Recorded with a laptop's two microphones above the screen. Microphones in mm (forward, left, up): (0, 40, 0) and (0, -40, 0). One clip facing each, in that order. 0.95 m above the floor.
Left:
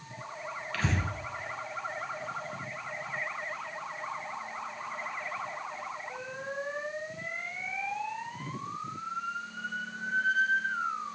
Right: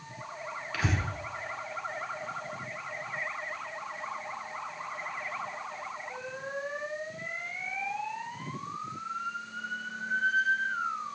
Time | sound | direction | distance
0.7 | breathing | 10° right (ahead or behind) | 2 m